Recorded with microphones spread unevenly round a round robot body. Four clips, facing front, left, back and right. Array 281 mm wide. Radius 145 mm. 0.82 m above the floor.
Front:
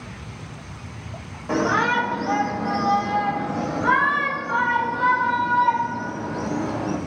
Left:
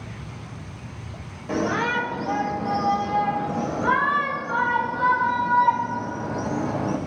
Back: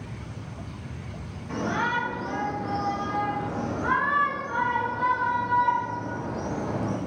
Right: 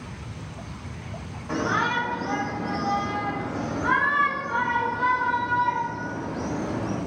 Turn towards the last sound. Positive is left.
turn(degrees=65)